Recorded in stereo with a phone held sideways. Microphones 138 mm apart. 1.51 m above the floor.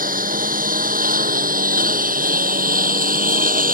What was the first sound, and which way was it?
A lawn mower, 80° right.